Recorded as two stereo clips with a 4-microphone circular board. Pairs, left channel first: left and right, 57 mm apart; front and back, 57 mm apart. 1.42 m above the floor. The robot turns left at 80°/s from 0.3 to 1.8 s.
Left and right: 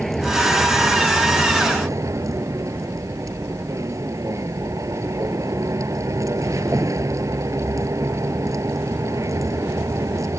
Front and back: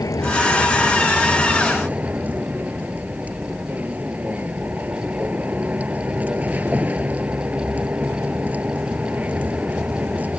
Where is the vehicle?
5° left; by 10.4 s 115° right.